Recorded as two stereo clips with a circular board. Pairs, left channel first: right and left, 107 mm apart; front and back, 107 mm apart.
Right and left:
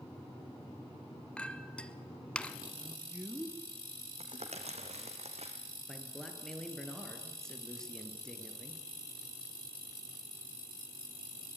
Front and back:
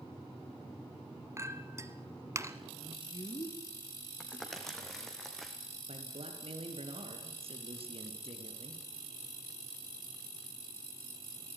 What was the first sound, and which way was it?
A clink, 160° right.